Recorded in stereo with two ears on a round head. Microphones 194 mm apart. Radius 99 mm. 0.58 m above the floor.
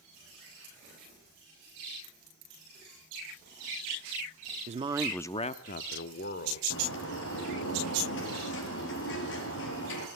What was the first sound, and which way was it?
A man speaking, 35° right (ahead or behind).